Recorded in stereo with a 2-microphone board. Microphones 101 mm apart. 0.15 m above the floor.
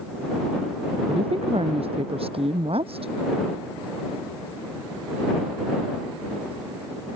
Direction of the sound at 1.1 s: 65° right (ahead or behind).